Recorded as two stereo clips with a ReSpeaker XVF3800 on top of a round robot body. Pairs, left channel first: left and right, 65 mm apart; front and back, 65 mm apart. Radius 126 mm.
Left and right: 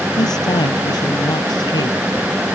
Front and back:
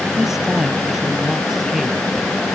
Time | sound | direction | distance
0.2 | a man speaking | 95° left | ?